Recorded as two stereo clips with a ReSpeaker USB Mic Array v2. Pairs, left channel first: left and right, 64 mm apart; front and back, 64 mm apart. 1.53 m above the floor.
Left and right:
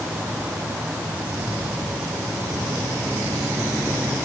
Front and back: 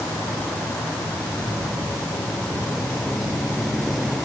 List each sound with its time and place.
Only background noise.